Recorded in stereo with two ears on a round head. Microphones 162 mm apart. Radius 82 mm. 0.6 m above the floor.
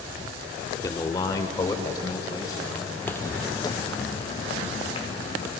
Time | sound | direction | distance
0.8 | a man speaking | 20° left (ahead or behind) | 1.1 m
3.0 | footsteps | 5° left (ahead or behind) | 0.9 m